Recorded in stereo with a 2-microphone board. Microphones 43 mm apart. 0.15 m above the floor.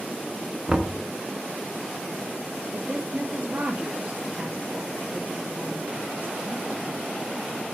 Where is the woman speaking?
35° right (ahead or behind), 2.5 m.